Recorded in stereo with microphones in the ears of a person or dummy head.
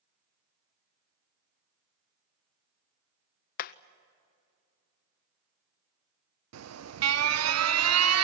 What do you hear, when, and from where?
3.6 s hammering: 50° left (ahead or behind), 0.6 m
6.5 s an alarm: 80° right, 0.9 m